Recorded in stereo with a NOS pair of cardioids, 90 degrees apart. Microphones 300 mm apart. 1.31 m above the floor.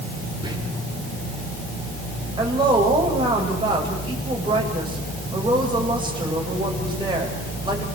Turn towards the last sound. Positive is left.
turn(degrees=-15)